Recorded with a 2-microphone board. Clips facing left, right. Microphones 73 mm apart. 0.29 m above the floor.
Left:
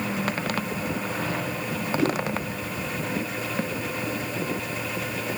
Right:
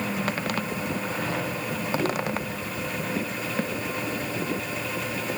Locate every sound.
2.0 s a whoosh: 80° left, 8 m